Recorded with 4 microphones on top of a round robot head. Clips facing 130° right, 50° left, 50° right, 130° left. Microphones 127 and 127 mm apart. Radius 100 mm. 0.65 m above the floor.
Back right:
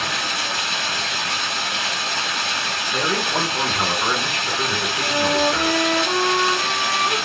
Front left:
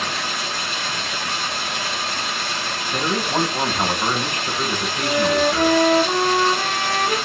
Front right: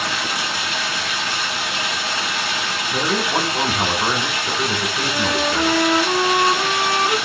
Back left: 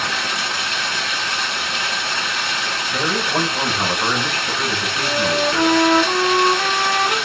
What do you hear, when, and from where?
0.0 s running water: 135° right, 1.4 m
2.9 s a man speaking: 5° left, 1.1 m
5.0 s a flute: 65° left, 0.7 m